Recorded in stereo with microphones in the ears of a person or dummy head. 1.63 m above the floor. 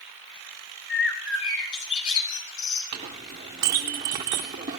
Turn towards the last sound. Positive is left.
turn(degrees=-20)  # may be behind; listen again after turning